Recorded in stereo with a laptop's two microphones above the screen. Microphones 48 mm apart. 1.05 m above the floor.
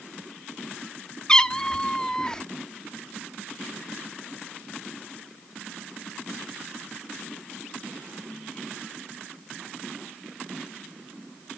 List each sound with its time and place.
1.3 s a cat meowing: 15° left (ahead or behind), 1.1 m